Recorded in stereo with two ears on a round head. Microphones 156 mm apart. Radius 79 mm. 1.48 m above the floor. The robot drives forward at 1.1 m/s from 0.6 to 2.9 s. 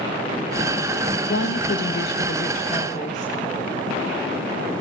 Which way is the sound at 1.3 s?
80° left.